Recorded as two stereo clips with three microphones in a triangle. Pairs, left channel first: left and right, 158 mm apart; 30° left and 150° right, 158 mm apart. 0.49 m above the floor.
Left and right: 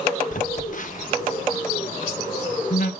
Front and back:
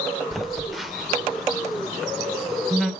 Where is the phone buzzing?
120° left, 0.6 m.